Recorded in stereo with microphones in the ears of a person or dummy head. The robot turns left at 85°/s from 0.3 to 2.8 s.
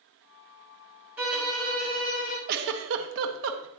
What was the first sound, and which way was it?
A violin, 170° right.